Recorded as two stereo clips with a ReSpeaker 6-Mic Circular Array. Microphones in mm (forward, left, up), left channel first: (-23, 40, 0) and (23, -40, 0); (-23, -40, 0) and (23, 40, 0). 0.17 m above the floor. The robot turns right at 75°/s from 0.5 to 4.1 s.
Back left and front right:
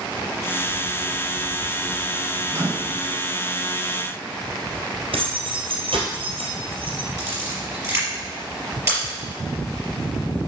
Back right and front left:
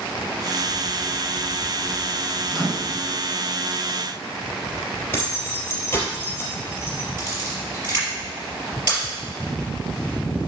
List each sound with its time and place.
2.5 s a microwave: 30° right, 1.7 m; by 3.0 s 10° left, 1.7 m
5.1 s keys jangling: 55° right, 3 m
7.2 s a camera shutter: straight ahead, 4.5 m